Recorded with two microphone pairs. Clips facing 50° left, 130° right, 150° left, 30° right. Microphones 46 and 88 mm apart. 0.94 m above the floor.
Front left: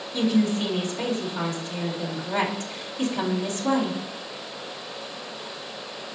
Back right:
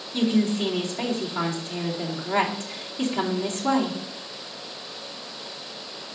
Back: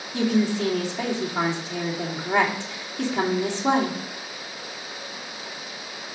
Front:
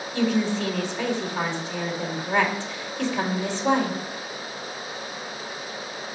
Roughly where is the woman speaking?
Behind.